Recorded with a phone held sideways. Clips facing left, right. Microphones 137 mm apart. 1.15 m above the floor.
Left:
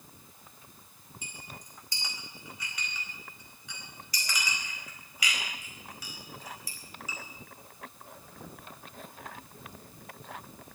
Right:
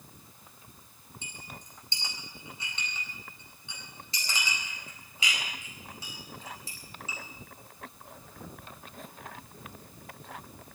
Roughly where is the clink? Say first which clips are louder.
Right 1 dB; right.